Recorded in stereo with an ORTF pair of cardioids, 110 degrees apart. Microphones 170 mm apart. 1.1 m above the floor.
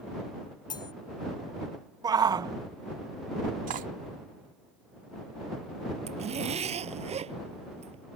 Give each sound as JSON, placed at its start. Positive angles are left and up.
{"t": 0.7, "sound": "cutlery clinking", "azimuth_deg": 25}
{"t": 2.0, "sound": "a shout", "azimuth_deg": -25}
{"t": 3.7, "sound": "cutlery clinking", "azimuth_deg": -50}
{"t": 6.1, "sound": "a zipper", "azimuth_deg": -40}